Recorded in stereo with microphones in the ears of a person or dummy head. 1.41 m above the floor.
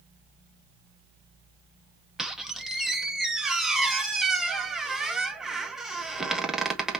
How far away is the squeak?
About 0.6 m.